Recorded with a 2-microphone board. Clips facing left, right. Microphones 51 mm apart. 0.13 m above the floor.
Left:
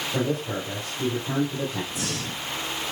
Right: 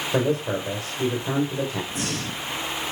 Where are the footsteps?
No footsteps in this recording.